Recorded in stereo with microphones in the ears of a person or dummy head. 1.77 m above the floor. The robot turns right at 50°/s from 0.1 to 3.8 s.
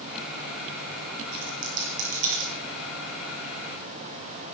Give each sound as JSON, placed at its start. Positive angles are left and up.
{"t": 1.3, "sound": "a dropped coin", "side_deg": -50, "distance_m": 7.0}